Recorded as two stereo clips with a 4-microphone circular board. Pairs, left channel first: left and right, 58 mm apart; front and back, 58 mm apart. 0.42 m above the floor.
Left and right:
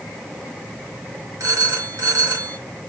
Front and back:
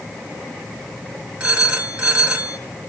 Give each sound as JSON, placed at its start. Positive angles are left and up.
{"t": 1.4, "sound": "a phone ringing", "azimuth_deg": -110, "distance_m": 4.0}